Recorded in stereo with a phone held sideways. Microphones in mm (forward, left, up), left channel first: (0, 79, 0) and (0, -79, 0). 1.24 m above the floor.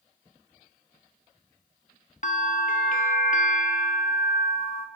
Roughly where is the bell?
Left.